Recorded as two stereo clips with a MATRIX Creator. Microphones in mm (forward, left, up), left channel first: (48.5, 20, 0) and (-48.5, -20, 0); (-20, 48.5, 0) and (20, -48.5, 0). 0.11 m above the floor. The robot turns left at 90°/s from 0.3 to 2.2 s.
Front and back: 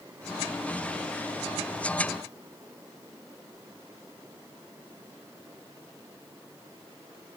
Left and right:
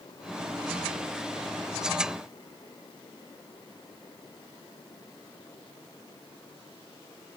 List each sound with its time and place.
Only background noise.